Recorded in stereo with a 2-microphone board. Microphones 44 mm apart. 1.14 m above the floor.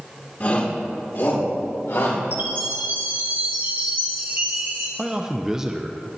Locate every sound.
0.4 s a shout: 40° left (ahead or behind), 2.5 m; by 2.2 s 80° left, 3.5 m
2.3 s a chime: 45° right (ahead or behind), 1.9 m
5.0 s a man speaking: 15° right (ahead or behind), 0.6 m